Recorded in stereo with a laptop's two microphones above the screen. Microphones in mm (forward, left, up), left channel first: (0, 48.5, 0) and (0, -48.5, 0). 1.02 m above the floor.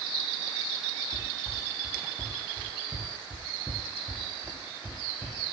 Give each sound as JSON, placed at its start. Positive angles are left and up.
{"t": 1.1, "sound": "running footsteps", "side_deg": -10, "distance_m": 6.5}